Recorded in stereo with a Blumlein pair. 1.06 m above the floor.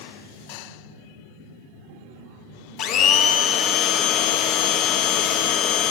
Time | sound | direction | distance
2.8 | a blender | 35° left | 0.8 m